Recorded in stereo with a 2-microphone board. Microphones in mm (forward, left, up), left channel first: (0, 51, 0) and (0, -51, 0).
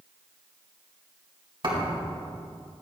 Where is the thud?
50° right (ahead or behind), 3.5 m.